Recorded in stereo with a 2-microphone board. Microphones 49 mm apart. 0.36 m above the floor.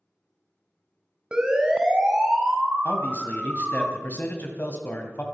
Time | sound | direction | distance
1.3 | a siren | 15° right (ahead or behind) | 2.5 m
2.9 | a man speaking | 35° left (ahead or behind) | 2.0 m